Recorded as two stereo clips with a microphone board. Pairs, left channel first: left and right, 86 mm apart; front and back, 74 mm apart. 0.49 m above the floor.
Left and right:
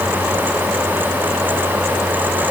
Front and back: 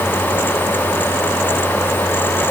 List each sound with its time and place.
Only background noise.